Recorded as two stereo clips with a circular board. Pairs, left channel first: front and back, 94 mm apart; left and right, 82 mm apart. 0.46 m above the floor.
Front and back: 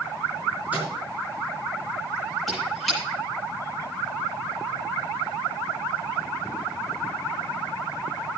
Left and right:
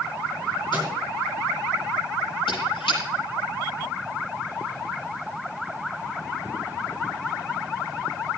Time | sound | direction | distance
0.7 | a microwave | 105° left | 5 m
2.5 | a squeak | 90° left | 8 m